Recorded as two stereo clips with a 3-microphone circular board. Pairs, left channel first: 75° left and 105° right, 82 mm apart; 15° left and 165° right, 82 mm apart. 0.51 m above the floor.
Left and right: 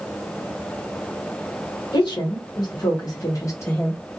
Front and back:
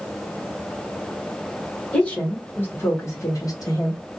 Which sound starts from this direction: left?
A woman speaking, at 1.9 s.